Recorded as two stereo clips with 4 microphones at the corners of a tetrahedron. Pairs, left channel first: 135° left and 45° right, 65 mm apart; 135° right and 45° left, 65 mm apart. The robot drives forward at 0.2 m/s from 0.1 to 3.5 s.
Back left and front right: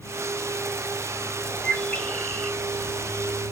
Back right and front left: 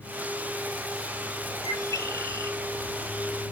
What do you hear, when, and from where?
1.6 s a bird: 150° right, 0.5 m; by 2.6 s 160° right, 0.7 m